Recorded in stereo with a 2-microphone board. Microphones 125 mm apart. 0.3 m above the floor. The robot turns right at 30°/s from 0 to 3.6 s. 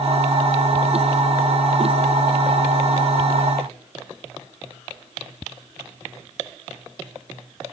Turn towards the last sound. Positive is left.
No sound to turn to.